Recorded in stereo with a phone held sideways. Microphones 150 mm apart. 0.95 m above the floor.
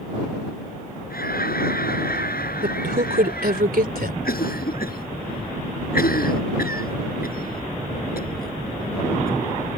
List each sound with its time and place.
1.1 s laughter: 80° left; by 3.6 s 90° left
2.6 s a man speaking: 80° right
4.2 s a cough: 80° left